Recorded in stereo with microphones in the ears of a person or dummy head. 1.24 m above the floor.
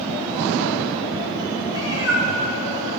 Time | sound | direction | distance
1.7 | a cat meowing | 20° right (ahead or behind) | 2 m